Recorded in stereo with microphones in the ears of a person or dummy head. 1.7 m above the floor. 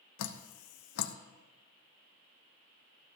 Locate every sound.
0.2 s dripping: 80° left, 1.0 m